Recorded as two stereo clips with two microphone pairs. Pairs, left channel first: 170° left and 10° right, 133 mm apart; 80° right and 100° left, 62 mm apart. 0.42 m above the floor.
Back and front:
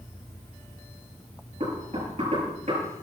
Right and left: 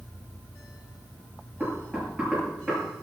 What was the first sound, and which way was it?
Knocking, 25° left.